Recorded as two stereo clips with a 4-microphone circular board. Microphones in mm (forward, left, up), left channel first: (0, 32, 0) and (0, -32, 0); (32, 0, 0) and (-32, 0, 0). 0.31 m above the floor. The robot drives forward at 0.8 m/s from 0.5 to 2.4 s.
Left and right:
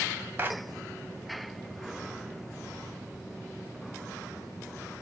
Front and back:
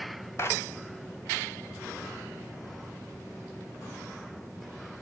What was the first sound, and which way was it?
A clap, 35° right.